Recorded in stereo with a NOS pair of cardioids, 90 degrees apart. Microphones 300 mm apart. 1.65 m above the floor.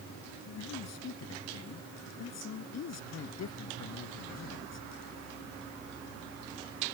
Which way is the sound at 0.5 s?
55° left.